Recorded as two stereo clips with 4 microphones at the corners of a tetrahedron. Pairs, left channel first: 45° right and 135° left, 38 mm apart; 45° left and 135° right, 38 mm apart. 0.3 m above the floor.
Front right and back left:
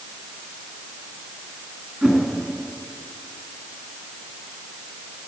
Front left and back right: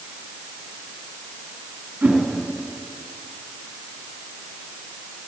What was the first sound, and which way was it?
A whoosh, 155° right.